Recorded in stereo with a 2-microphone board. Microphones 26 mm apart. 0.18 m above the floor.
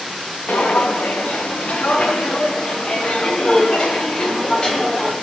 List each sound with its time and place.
0.5 s footsteps: 85° left, 1.5 m; by 5.1 s 35° left (ahead or behind), 3 m